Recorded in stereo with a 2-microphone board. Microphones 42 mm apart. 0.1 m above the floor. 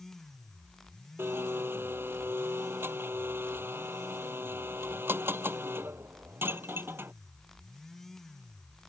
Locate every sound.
1.2 s a blender: 60° right (ahead or behind)